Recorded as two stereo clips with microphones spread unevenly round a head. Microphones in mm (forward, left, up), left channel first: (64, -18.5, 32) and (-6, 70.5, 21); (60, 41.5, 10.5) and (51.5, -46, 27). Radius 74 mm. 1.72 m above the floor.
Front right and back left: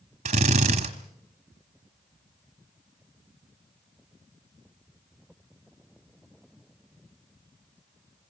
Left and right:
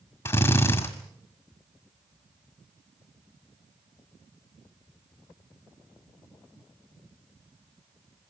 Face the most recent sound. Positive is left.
turn(degrees=165)